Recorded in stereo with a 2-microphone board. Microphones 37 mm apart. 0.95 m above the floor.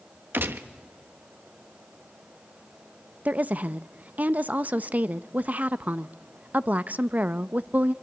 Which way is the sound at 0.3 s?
60° right (ahead or behind).